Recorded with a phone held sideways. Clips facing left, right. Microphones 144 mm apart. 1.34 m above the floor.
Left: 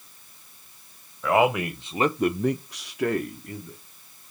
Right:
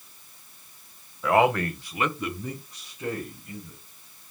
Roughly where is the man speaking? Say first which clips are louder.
Even; centre.